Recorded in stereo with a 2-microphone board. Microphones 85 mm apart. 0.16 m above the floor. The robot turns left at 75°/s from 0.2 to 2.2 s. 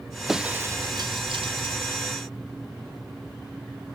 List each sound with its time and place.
0.3 s breaking glass: 5° right (ahead or behind); by 2.0 s 50° right (ahead or behind)